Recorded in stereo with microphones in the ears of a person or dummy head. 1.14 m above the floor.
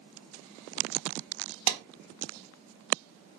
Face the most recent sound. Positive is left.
turn(degrees=-80)